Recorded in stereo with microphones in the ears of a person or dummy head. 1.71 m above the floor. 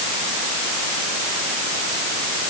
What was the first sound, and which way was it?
Only background noise.